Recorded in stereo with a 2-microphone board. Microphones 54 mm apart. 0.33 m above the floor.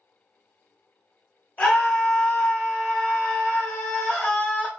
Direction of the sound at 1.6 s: 20° left (ahead or behind).